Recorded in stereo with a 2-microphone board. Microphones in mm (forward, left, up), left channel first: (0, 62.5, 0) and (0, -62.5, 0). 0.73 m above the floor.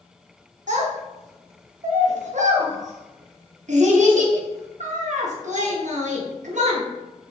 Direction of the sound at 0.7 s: 75° right (ahead or behind).